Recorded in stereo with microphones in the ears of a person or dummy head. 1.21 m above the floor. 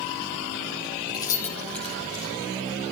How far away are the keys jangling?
About 1.2 m.